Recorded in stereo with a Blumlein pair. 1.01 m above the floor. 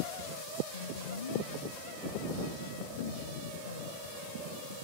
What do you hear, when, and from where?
0.7 s a woman speaking: 70° left